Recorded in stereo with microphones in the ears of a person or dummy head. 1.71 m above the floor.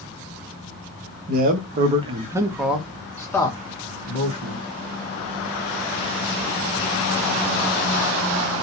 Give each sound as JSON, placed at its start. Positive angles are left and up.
{"t": 1.3, "sound": "a man speaking", "side_deg": -60, "distance_m": 0.9}